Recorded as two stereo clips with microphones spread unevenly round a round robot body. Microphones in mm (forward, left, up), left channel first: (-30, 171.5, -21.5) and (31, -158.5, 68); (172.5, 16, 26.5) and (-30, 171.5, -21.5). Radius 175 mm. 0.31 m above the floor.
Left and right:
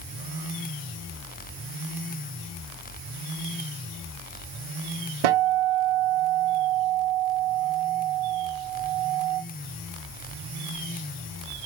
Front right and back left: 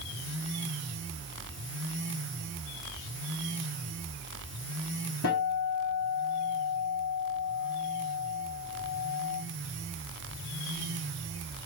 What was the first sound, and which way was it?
A guitar, 95° right.